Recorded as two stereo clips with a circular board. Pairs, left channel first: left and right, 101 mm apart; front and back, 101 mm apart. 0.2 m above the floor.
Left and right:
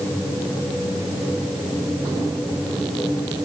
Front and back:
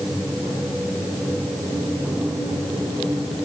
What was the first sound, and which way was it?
Only background noise.